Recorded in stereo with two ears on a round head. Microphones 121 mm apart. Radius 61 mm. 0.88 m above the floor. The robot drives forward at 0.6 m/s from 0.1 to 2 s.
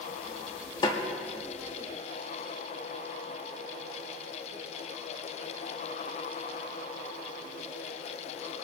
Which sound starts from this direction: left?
A snare drum, at 0.8 s.